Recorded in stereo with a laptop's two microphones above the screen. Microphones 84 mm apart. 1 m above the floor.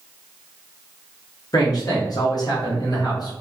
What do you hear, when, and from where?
1.5 s a man speaking: 50° left (ahead or behind), 0.9 m